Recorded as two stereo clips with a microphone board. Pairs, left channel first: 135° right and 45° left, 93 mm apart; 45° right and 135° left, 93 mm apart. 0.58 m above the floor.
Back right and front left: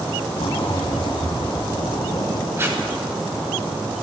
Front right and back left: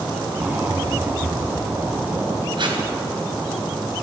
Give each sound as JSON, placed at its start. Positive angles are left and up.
{"t": 0.3, "sound": "a zipper", "azimuth_deg": -160, "distance_m": 2.0}
{"t": 2.6, "sound": "tape being pulled", "azimuth_deg": 110, "distance_m": 2.5}